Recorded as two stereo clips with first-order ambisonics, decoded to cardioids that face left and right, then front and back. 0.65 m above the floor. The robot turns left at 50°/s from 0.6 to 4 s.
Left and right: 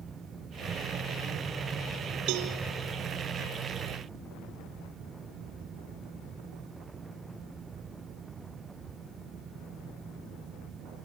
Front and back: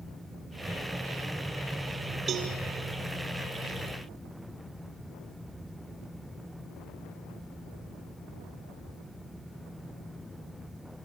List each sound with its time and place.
2.3 s a cowbell: 115° right, 3 m; by 2.5 s 130° right, 3 m